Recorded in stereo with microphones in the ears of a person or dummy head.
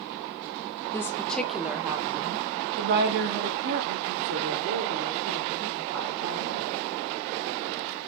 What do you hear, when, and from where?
0.9 s a woman speaking: 15° left (ahead or behind), 1.3 m; by 6.9 s 70° right (ahead or behind), 4 m